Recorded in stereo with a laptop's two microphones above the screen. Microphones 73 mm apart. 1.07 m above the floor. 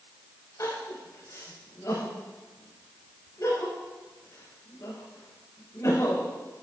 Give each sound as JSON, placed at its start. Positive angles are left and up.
{"t": 0.6, "sound": "crying", "side_deg": 50, "distance_m": 5.0}